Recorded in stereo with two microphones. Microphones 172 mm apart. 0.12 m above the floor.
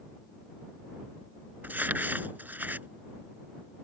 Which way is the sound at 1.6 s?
10° right (ahead or behind).